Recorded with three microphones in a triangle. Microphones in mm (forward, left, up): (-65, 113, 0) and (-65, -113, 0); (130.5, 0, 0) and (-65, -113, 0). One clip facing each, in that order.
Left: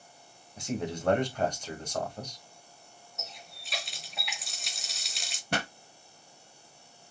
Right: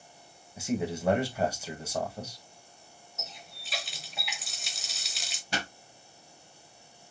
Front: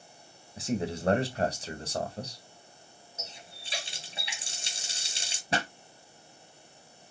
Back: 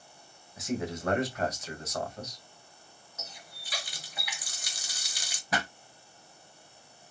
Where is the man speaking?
10° right, 1.4 m.